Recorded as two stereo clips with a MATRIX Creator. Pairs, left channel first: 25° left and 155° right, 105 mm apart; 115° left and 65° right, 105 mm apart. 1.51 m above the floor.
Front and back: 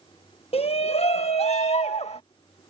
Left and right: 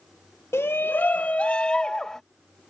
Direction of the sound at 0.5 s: 45° left.